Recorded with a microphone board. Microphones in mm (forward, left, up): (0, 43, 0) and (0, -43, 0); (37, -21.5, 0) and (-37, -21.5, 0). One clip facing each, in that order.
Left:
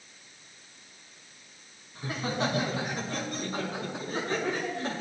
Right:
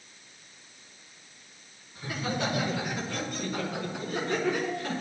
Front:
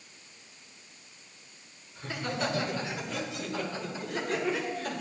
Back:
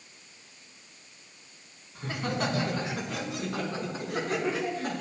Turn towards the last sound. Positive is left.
turn(degrees=150)